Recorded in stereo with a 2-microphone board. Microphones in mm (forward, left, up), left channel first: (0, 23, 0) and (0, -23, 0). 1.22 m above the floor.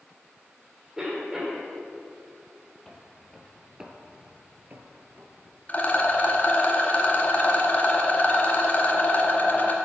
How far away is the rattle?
About 1.9 m.